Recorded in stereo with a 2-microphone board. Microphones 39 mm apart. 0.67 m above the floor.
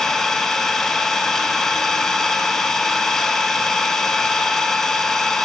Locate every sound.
0.0 s an engine running: 10° left (ahead or behind), 1.5 m